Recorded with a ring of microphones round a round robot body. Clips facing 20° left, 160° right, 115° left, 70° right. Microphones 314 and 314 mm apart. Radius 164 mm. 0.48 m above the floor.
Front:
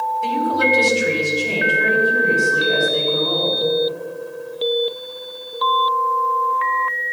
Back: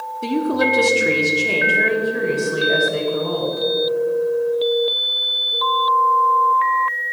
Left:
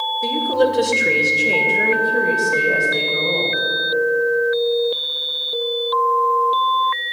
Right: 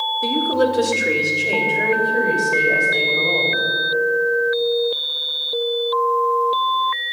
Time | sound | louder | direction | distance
0.2 | a woman speaking | back 3 dB, even | 140° right | 1.4 m